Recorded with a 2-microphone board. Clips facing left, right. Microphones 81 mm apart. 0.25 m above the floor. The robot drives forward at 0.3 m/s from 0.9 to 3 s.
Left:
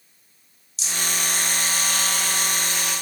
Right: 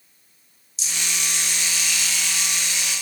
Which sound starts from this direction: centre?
A rattle, at 0.8 s.